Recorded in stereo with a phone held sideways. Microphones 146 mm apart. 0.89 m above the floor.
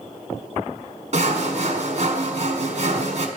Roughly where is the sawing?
Right.